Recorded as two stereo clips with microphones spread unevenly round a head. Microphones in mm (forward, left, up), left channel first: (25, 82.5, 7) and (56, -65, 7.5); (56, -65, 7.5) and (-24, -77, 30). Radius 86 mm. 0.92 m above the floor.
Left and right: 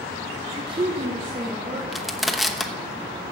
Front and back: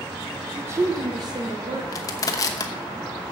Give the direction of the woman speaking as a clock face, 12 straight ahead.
3 o'clock.